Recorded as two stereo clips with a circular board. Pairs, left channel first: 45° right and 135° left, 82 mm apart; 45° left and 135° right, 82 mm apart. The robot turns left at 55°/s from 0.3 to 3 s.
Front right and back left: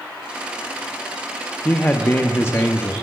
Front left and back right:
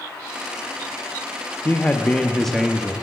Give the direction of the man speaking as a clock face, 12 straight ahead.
12 o'clock.